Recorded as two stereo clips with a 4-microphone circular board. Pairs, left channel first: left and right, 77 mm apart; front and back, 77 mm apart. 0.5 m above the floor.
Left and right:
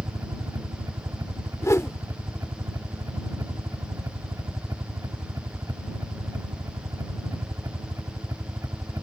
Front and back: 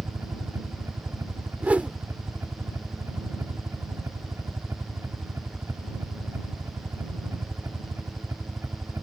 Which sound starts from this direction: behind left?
A whoosh, at 1.6 s.